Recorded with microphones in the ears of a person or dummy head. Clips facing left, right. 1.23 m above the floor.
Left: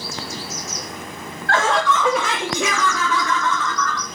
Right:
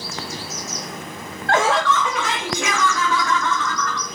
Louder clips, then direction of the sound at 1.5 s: Right 1 dB; 25° right (ahead or behind).